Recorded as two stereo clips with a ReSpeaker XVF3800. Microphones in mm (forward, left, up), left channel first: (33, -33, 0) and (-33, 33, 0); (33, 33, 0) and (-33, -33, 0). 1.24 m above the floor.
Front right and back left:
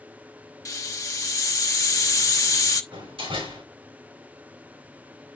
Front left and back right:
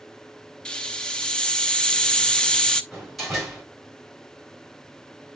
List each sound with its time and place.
0.7 s a hiss: 30° right, 0.8 m
2.9 s a door slam: 135° left, 4.5 m